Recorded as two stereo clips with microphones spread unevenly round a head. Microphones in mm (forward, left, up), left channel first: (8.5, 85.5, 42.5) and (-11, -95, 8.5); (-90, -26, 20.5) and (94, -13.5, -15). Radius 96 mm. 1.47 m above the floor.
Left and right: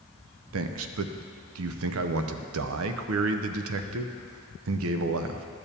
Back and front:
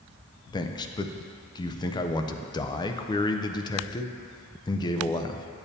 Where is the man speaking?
110° right, 0.5 m.